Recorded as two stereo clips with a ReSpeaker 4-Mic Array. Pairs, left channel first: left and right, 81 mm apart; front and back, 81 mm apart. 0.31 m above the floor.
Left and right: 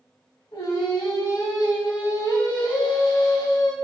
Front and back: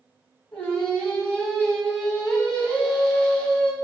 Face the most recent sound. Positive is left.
turn(degrees=75)